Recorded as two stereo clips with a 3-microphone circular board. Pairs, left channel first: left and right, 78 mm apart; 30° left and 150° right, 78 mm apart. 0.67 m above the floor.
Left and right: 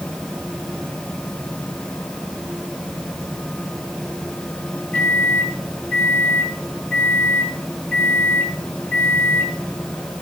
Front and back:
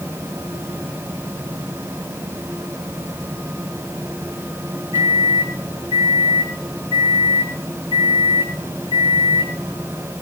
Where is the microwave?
160° left, 7.5 m.